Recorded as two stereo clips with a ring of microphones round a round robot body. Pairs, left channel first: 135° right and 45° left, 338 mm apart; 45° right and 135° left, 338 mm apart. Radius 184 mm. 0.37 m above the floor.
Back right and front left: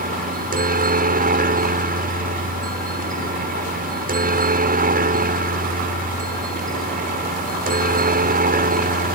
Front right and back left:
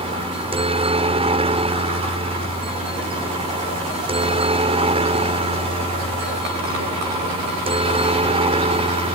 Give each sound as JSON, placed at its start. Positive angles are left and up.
{"t": 0.0, "sound": "a helicopter", "azimuth_deg": 80}